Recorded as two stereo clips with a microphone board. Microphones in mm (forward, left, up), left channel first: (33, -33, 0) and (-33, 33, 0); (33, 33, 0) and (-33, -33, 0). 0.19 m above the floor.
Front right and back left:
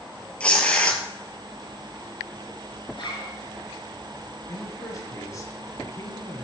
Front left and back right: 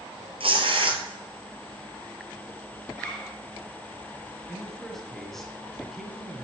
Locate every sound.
0.4 s tearing paper: 120° right, 1.4 m
2.9 s a zipper: 35° right, 3 m
4.5 s a man speaking: 40° right, 1.8 m